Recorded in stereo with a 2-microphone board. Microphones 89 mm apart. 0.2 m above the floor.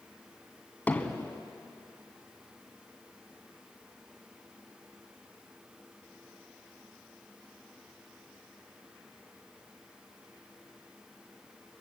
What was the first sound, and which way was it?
Hammering, 20° left (ahead or behind).